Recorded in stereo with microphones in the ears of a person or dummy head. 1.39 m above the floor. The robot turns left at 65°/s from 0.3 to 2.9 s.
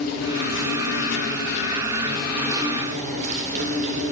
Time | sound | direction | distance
0.0 | an insect | 125° left | 1.1 m